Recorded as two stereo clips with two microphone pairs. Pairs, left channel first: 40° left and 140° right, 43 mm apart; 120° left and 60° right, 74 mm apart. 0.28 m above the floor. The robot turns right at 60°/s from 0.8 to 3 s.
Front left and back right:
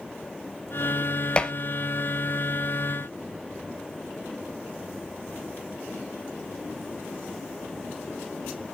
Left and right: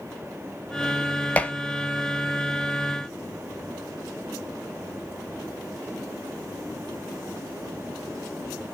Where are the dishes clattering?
70° left, 0.6 m; by 1.5 s 80° left, 0.6 m.